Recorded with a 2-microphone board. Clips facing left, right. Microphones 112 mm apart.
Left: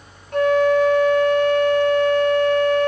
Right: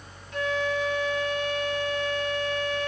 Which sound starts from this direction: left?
A flute, at 0.3 s.